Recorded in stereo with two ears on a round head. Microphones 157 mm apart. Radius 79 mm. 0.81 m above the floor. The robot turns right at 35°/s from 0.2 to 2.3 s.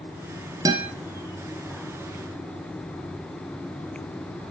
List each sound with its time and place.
0.7 s a guitar: 20° right (ahead or behind), 3 m; by 0.9 s 15° right (ahead or behind), 3 m